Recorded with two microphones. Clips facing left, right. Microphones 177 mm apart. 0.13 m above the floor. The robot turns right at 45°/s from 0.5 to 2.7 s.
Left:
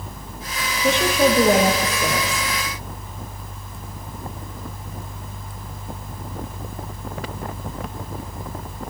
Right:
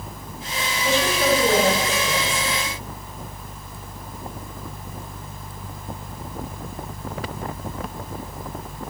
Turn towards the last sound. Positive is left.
turn(degrees=150)